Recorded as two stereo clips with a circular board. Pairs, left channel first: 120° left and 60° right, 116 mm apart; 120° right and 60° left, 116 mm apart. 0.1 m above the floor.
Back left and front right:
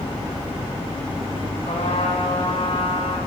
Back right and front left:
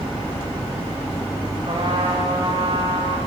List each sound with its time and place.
1.7 s a trumpet: 105° left, 9 m